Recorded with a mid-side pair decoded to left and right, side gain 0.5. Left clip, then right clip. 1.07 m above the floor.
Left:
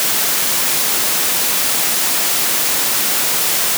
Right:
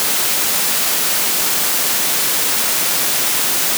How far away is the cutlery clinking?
I don't hear cutlery clinking.